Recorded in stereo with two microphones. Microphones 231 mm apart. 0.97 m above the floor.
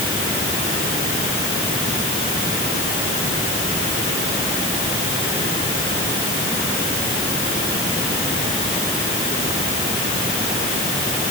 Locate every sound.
Only background noise.